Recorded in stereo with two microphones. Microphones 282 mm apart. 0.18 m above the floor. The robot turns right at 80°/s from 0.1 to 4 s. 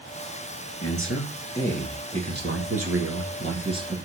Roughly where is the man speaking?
Left.